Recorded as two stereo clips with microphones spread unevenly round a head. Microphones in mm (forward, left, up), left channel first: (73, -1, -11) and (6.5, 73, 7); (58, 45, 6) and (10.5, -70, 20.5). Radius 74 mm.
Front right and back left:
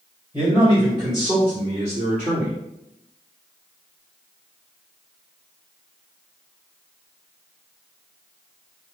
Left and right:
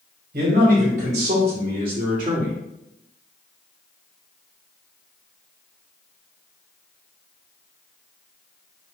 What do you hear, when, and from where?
0.3 s a man speaking: 150° right, 2 m; by 2.5 s straight behind, 2 m